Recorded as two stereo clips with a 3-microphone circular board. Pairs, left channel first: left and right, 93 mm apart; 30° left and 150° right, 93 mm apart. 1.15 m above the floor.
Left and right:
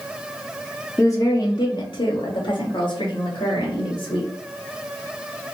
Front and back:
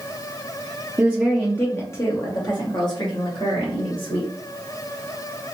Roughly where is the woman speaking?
Behind left.